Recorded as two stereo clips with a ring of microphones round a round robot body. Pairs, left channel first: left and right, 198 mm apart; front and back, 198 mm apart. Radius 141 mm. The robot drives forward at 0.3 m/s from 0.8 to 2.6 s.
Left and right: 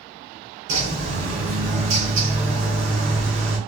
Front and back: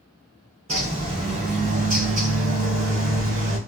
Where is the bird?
115° right, 3.5 m; by 3.6 s 120° right, 3.5 m.